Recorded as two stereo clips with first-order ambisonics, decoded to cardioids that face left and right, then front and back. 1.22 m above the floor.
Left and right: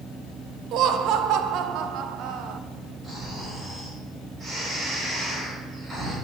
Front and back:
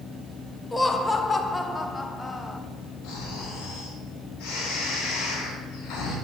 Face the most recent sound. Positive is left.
turn(degrees=-15)